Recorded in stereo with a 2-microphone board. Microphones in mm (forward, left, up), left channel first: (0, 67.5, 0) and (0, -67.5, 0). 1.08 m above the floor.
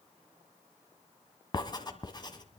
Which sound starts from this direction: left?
Writing, at 1.5 s.